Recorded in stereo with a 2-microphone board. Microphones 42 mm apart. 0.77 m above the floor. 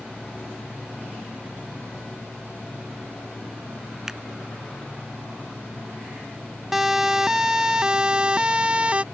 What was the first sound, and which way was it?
A finger snap, 10° right (ahead or behind).